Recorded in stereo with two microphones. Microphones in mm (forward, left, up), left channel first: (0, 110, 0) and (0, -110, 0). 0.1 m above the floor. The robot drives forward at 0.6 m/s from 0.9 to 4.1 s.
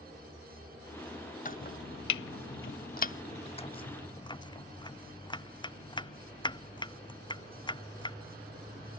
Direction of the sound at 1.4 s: 40° left (ahead or behind).